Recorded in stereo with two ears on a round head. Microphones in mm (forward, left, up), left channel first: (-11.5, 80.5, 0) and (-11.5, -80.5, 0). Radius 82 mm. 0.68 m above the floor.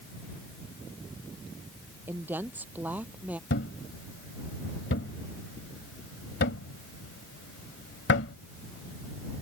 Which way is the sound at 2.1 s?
10° right (ahead or behind).